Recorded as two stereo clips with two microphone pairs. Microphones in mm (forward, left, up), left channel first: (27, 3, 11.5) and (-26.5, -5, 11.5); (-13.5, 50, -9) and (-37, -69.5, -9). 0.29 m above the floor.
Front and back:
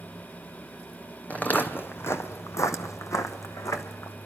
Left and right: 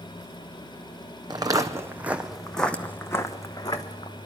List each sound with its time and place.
1.3 s footsteps: 50° right, 1.0 m; by 4.1 s 25° left, 1.4 m